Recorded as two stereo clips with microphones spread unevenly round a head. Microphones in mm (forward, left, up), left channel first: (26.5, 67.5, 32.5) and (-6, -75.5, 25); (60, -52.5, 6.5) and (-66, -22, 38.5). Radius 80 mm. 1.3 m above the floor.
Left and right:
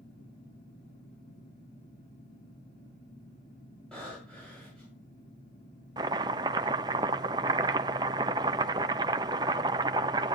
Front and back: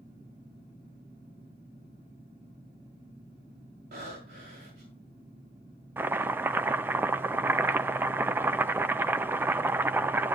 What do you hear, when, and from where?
0.0 s a fan: 115° left, 8 m
3.9 s breathing: 160° left, 9.5 m
6.0 s chopping: 155° right, 0.5 m